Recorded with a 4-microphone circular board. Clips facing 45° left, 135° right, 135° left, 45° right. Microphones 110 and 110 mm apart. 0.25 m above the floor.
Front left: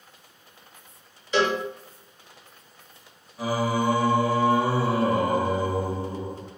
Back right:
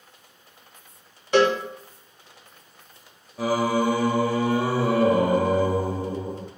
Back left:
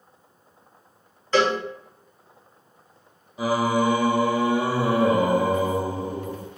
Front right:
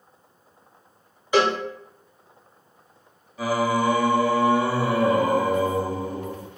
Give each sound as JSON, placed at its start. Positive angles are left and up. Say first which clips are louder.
{"t": 1.3, "sound": "a cowbell", "louder": "back right 4 dB, even", "azimuth_deg": -120, "distance_m": 1.0}
{"t": 3.4, "sound": "singing", "louder": "back right 3 dB, back left 1 dB", "azimuth_deg": -155, "distance_m": 0.7}